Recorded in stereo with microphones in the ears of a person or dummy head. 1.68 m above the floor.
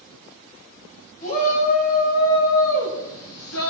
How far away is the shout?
About 2 m.